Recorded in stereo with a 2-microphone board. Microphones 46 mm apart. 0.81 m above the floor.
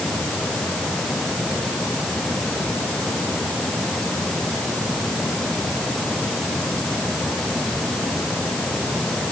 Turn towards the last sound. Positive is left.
No sound to turn to.